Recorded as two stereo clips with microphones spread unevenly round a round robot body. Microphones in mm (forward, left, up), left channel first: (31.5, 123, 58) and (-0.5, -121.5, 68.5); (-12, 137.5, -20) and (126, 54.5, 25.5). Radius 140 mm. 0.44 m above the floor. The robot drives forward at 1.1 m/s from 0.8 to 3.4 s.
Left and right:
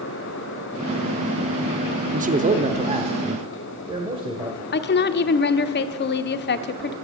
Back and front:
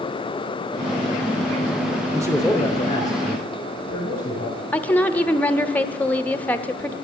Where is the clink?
I don't hear a clink.